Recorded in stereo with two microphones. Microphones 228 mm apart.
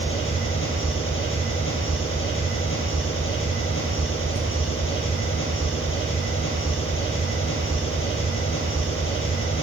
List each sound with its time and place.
0.0 s an engine running: 65° left (ahead or behind), 4 m